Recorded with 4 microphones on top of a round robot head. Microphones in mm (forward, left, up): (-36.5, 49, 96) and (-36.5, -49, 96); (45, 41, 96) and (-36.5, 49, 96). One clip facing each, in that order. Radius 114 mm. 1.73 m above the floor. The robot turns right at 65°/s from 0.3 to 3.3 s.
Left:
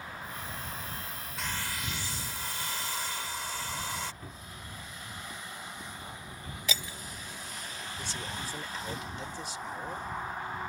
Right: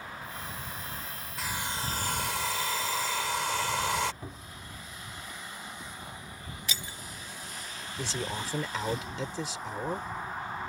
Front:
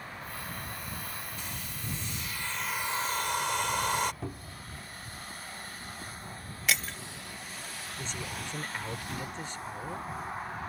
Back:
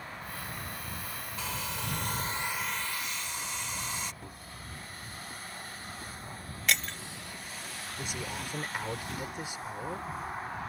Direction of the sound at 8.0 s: 105° right.